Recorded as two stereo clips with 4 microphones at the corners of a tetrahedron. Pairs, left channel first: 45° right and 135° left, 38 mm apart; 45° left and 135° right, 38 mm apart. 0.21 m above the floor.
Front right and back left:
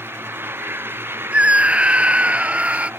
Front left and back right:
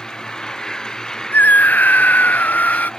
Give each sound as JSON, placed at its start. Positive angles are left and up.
{"t": 0.0, "sound": "an engine running", "azimuth_deg": 115}
{"t": 1.3, "sound": "a scream", "azimuth_deg": 80}